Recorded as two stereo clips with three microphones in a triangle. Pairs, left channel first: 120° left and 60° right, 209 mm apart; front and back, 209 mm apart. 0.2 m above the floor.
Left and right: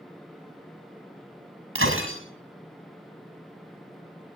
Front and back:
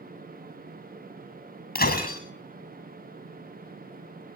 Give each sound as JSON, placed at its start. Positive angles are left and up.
{"t": 1.8, "sound": "breaking glass", "azimuth_deg": -45, "distance_m": 6.5}